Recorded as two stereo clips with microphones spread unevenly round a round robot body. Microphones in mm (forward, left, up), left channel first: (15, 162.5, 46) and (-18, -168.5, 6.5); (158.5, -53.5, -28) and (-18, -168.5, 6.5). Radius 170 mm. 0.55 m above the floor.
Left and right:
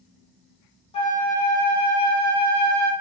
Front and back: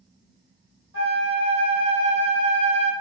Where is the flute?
160° left, 0.5 m.